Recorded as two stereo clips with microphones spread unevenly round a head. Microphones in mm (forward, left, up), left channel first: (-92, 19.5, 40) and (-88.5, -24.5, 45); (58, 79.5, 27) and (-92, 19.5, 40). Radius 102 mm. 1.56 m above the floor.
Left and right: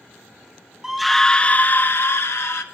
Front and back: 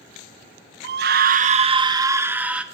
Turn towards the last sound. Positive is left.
turn(degrees=120)